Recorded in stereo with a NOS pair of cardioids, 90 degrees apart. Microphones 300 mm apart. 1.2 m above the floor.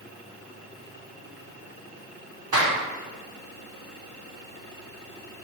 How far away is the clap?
About 3 m.